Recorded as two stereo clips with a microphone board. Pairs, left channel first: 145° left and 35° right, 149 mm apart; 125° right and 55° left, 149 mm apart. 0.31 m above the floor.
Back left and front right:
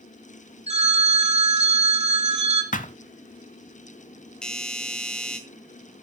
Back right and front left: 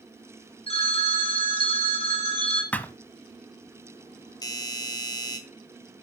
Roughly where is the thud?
Behind.